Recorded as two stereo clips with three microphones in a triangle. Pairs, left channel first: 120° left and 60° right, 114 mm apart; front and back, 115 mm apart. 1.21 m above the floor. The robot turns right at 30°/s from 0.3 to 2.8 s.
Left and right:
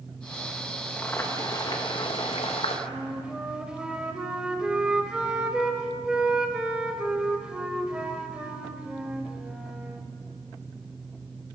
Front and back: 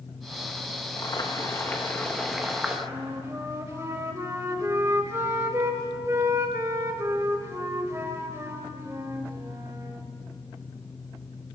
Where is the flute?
135° right, 1.1 m.